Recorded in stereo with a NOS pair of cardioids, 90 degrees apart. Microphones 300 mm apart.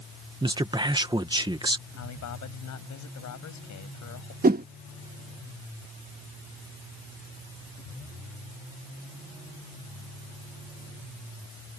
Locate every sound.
0.4 s a man speaking: 15° right
2.0 s a man speaking: 65° left
4.4 s a whoosh: 30° right